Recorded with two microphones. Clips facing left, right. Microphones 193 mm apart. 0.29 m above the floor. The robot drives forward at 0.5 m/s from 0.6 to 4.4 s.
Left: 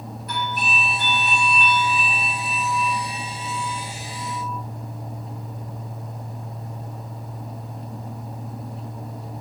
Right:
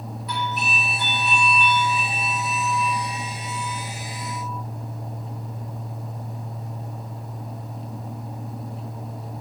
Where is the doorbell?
50° left (ahead or behind), 4.5 m; by 4.6 s 40° left (ahead or behind), 5.5 m.